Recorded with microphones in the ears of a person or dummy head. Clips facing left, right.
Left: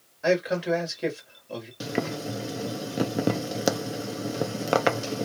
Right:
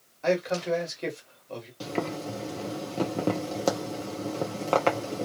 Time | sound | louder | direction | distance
0.2 | a man speaking | left 2 dB | 10° left (ahead or behind) | 1.4 m
1.8 | boiling | left 1 dB | 15° left (ahead or behind) | 0.6 m